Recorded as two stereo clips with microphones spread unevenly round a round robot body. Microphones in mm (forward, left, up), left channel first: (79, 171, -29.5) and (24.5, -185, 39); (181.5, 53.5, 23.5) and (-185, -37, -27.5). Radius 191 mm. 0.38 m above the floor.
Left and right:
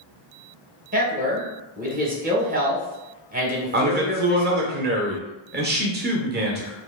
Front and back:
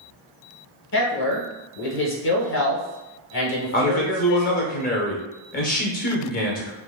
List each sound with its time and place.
0.9 s a man speaking: 30° right, 1.1 m
3.7 s a man speaking: 45° right, 0.8 m